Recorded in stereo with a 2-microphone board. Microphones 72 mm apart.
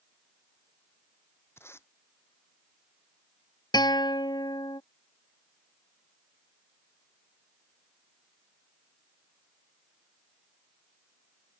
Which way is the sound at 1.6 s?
35° left (ahead or behind).